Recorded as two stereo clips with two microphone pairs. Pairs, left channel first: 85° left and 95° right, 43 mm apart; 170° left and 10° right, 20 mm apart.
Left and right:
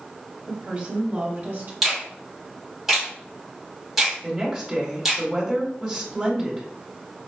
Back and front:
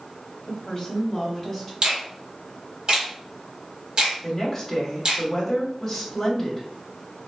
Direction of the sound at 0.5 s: 150° right.